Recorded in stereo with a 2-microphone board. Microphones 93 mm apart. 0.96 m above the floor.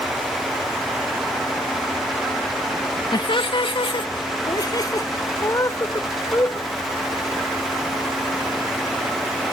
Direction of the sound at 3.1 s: 50° left (ahead or behind).